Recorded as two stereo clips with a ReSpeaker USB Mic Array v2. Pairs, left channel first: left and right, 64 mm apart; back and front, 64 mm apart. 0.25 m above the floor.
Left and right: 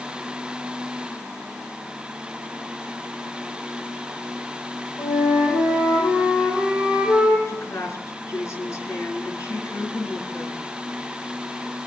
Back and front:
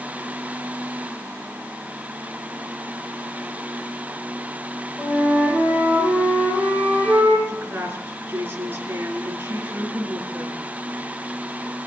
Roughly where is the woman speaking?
Ahead left.